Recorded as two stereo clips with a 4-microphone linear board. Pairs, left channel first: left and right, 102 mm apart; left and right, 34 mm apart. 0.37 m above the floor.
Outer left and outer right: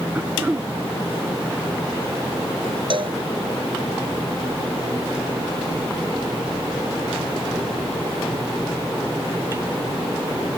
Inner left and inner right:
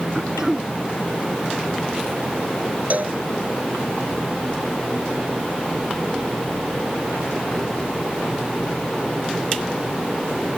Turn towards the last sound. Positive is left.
turn(degrees=-55)  # may be behind; listen again after turning